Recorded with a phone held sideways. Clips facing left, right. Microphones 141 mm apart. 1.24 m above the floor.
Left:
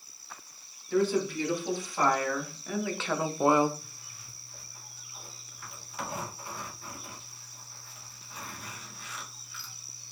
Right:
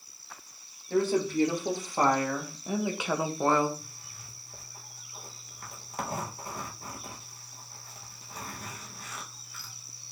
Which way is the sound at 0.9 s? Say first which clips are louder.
Right 1 dB; 45° right (ahead or behind).